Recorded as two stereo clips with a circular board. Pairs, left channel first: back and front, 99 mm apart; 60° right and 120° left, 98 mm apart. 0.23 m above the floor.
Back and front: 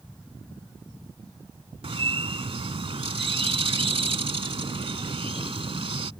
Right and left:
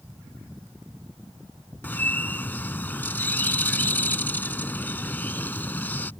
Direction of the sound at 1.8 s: 10° left.